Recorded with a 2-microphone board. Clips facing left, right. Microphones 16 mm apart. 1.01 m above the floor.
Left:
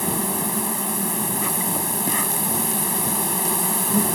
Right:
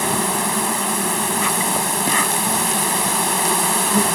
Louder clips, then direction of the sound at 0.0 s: Right 5 dB; 20° right (ahead or behind).